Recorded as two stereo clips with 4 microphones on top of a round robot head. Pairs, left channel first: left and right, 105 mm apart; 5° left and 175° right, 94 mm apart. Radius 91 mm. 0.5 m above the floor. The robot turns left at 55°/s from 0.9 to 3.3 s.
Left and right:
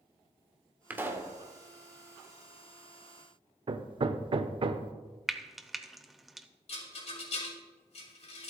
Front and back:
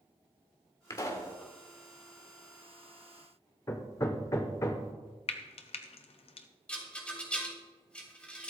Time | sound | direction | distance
0.9 | a pop | 25° right | 1.8 m
3.7 | hammering | 55° right | 0.8 m
5.3 | frying | straight ahead | 0.9 m
6.7 | a rattle | 85° left | 3 m